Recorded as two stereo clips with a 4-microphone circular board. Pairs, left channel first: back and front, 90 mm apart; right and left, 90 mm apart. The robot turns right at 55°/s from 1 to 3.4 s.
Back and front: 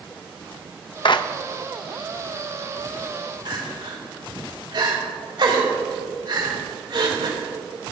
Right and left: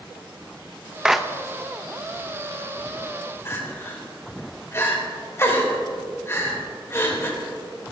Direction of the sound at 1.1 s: 170° left.